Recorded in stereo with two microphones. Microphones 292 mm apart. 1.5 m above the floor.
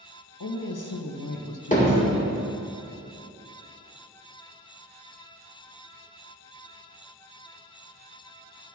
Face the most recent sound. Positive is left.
turn(degrees=25)  # may be behind; listen again after turning